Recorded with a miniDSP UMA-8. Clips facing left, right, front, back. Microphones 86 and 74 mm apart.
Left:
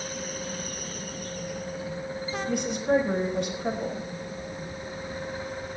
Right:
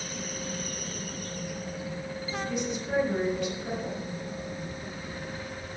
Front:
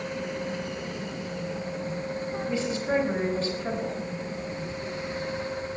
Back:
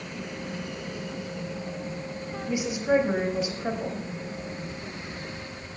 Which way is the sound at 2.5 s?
105° left.